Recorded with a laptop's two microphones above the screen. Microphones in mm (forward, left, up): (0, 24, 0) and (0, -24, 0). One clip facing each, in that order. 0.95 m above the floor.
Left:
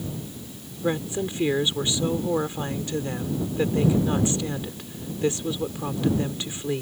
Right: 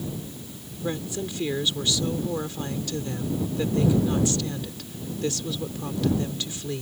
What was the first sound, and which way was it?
A woman speaking, 20° left (ahead or behind).